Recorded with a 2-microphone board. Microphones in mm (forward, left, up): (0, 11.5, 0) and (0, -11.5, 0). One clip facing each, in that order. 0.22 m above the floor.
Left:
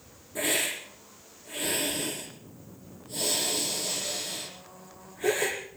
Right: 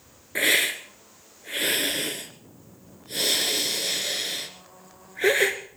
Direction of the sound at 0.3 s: 65° right (ahead or behind).